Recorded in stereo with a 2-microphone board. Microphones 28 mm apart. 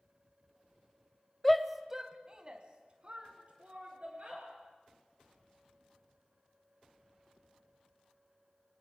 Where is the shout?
10° left (ahead or behind), 1.0 m; by 4.5 s 40° right (ahead or behind), 4 m.